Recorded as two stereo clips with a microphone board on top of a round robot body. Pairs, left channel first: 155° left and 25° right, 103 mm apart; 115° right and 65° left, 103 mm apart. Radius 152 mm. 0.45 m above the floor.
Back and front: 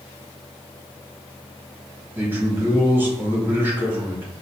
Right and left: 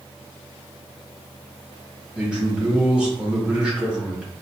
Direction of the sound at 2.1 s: 5° left.